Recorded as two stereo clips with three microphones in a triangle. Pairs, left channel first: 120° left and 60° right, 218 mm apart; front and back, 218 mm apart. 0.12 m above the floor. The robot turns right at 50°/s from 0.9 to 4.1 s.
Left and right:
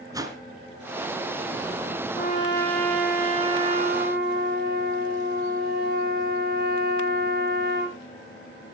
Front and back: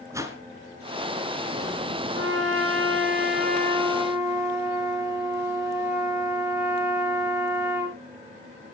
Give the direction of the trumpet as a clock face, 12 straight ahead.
6 o'clock.